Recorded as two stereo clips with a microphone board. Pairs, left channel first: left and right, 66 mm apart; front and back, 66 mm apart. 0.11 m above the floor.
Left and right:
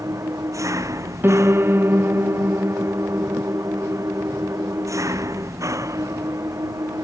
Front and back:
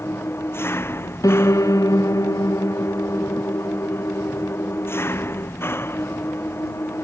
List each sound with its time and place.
0.0 s an engine running: 50° right
1.2 s a piano: 35° right